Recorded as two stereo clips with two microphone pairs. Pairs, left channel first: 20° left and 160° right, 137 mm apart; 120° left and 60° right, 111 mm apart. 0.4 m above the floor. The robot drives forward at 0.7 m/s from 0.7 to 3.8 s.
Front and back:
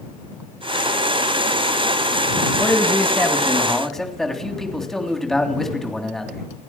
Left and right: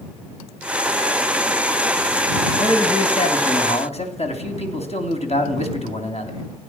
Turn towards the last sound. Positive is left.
turn(degrees=105)